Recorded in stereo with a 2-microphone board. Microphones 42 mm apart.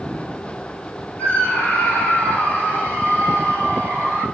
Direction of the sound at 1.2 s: 35° left (ahead or behind).